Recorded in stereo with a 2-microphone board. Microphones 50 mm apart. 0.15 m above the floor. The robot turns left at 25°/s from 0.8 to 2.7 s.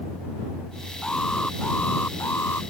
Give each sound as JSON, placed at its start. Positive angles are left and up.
{"t": 1.0, "sound": "an alarm", "azimuth_deg": 165}